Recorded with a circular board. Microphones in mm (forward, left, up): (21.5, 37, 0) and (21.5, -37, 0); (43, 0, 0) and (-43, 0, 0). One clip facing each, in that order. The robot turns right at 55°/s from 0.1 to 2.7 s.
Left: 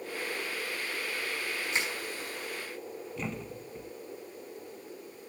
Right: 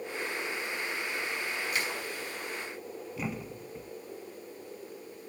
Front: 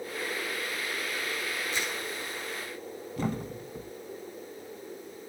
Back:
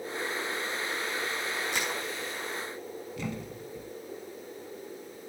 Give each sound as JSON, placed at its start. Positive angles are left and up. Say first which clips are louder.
{"t": 1.7, "sound": "crushing", "louder": "left 2 dB, back 1 dB", "azimuth_deg": 155, "distance_m": 4.5}
{"t": 3.2, "sound": "a thud", "louder": "right 1 dB, front 7 dB", "azimuth_deg": -10, "distance_m": 0.6}